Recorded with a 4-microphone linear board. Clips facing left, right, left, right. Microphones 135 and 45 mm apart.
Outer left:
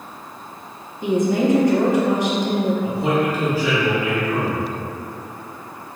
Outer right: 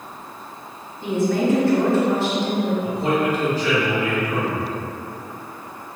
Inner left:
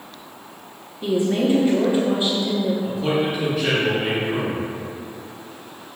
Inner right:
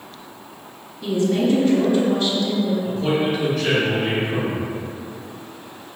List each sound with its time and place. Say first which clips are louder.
1.0 s a woman speaking: outer left 2 dB, even; 20° left (ahead or behind), 0.7 m
2.8 s a man speaking: outer left 1 dB, inner right 1 dB; 10° left (ahead or behind), 1.7 m